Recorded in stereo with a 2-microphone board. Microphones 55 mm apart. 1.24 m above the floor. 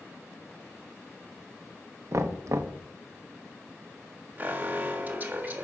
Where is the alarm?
30° right (ahead or behind), 1.6 m.